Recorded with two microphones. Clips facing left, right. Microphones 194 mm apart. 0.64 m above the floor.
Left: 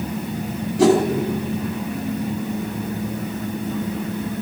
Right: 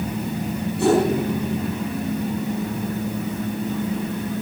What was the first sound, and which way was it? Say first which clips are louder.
A whoosh: left 3 dB; 75° left (ahead or behind).